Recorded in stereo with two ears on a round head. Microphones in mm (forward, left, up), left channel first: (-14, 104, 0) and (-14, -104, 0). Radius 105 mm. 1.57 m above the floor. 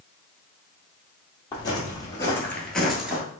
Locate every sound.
1.5 s footsteps: 20° left (ahead or behind), 2.5 m; by 3.2 s 5° right (ahead or behind), 1.7 m